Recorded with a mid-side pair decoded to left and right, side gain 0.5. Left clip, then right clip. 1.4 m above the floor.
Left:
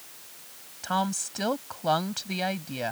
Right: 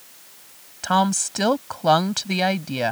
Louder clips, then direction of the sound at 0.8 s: Right 8 dB; 50° right.